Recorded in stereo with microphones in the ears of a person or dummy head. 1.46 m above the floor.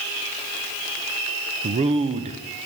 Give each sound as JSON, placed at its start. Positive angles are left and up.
{"t": 1.6, "sound": "a man speaking", "side_deg": -30, "distance_m": 0.5}